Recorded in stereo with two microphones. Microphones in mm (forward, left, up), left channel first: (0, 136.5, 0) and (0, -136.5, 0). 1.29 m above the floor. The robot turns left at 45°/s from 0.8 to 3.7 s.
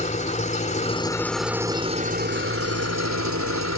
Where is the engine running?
25° left; by 3.8 s 105° right.